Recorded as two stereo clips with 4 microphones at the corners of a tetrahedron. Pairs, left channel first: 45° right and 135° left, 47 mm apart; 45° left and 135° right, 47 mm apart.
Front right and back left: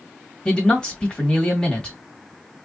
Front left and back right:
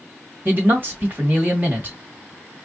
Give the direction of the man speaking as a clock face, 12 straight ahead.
4 o'clock.